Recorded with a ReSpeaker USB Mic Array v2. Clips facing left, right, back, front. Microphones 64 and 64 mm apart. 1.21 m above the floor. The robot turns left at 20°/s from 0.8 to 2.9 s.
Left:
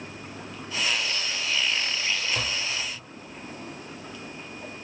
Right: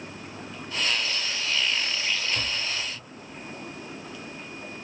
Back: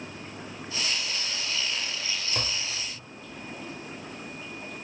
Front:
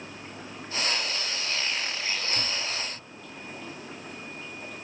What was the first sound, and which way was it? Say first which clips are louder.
Tapping: left 1 dB, front 1 dB; 145° left.